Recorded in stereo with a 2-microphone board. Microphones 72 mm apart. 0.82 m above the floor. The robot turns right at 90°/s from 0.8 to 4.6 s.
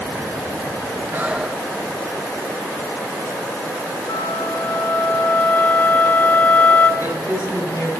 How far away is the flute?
About 2 m.